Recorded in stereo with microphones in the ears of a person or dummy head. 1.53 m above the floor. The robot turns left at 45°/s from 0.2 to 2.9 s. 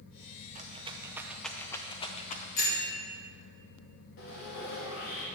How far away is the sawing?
About 1.6 m.